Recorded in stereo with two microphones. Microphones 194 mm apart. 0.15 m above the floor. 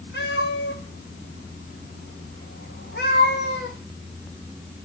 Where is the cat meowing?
65° left (ahead or behind), 4.5 m.